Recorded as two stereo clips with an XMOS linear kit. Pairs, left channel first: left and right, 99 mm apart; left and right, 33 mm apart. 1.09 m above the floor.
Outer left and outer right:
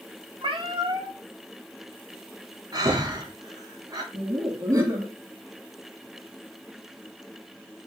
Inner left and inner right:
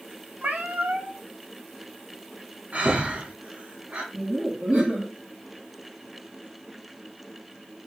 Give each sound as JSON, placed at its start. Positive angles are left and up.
{"t": 0.4, "sound": "a cat meowing", "side_deg": -55, "distance_m": 0.5}
{"t": 2.7, "sound": "breathing", "side_deg": -40, "distance_m": 0.7}
{"t": 4.1, "sound": "laughter", "side_deg": -30, "distance_m": 1.6}